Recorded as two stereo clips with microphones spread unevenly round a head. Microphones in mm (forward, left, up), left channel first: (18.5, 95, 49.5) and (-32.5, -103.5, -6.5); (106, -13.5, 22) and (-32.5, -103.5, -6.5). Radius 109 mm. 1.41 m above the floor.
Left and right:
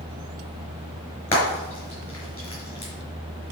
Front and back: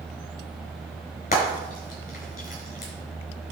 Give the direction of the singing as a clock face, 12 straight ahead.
No singing in this recording.